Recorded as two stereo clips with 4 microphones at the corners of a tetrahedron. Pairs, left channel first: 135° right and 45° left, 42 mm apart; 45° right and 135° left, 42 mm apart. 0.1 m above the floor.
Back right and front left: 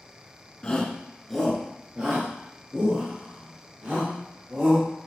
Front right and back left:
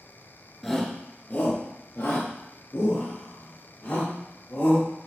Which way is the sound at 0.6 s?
130° right.